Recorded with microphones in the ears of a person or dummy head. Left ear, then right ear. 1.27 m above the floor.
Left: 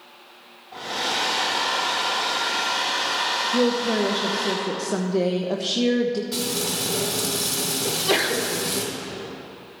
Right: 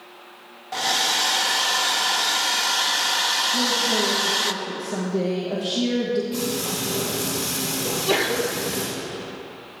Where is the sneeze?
10° left (ahead or behind), 1.0 m.